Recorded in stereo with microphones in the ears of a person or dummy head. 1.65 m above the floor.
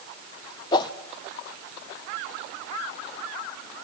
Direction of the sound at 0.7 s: 25° left (ahead or behind).